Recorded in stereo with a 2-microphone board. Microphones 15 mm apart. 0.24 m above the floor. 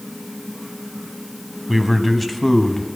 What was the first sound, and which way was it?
A man speaking, 20° right (ahead or behind).